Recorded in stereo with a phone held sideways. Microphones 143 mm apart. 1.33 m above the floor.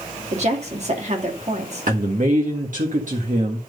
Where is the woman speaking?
50° right (ahead or behind), 2.5 m.